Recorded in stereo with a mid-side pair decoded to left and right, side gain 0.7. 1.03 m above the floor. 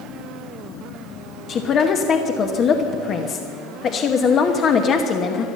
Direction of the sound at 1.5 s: 40° left.